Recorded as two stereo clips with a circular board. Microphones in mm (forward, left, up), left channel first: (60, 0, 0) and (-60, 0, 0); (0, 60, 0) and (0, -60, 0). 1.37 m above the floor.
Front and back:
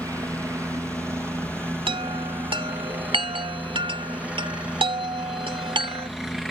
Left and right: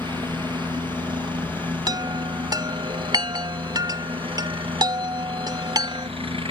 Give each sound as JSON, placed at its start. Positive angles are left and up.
{"t": 0.0, "sound": "a helicopter", "azimuth_deg": -125}
{"t": 1.9, "sound": "a chime", "azimuth_deg": -140}